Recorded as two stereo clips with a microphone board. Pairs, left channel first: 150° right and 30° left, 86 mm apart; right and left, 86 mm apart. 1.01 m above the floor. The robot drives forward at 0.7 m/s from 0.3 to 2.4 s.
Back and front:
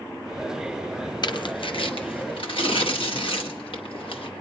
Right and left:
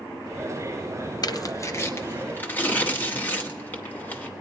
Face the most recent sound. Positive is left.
turn(degrees=-160)